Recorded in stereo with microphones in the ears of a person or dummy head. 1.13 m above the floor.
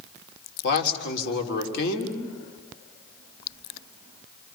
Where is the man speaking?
60° left (ahead or behind), 3 m.